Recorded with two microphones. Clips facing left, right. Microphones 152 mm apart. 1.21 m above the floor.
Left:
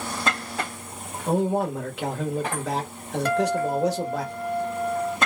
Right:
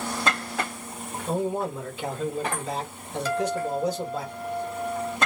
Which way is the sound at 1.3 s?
70° left (ahead or behind).